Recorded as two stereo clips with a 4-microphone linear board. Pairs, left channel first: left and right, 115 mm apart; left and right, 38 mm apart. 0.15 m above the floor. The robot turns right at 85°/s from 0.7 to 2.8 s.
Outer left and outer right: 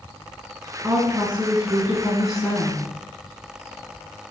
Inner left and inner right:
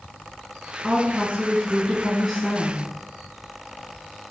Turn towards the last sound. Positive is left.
turn(degrees=40)